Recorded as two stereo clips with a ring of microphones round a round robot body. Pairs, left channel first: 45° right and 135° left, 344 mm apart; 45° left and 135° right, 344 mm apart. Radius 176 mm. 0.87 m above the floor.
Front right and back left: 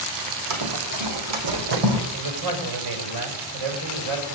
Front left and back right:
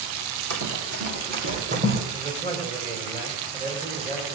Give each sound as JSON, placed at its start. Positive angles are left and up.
{"t": 0.5, "sound": "running footsteps", "azimuth_deg": 175, "distance_m": 3.0}
{"t": 2.1, "sound": "a man speaking", "azimuth_deg": 160, "distance_m": 4.5}